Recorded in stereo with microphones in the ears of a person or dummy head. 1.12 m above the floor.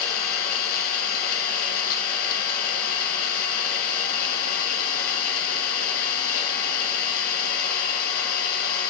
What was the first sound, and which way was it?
An engine running, 50° left (ahead or behind).